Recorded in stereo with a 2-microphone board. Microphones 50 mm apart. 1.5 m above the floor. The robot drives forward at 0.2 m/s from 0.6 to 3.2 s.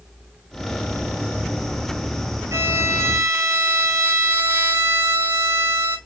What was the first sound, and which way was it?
A violin, 60° right (ahead or behind).